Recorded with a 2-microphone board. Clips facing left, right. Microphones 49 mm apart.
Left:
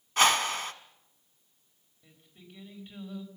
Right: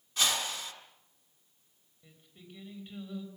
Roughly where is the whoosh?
Left.